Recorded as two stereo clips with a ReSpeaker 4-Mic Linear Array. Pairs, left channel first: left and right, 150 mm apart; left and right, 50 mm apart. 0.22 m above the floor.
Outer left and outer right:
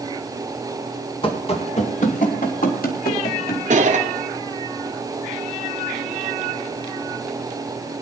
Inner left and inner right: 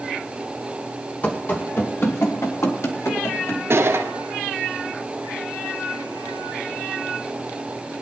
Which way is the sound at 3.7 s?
60° right (ahead or behind).